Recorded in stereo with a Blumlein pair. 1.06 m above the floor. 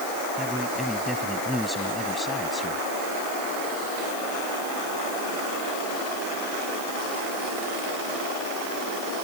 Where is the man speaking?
Straight ahead; by 2.8 s 15° left.